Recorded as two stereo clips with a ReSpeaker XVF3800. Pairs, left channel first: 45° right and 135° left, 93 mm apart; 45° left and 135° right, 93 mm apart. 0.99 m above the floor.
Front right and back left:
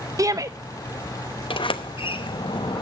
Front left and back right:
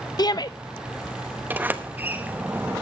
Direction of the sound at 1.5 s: 65° right.